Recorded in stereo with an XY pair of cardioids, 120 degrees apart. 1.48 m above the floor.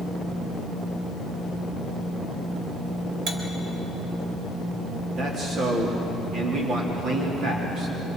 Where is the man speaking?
60° right, 4 m.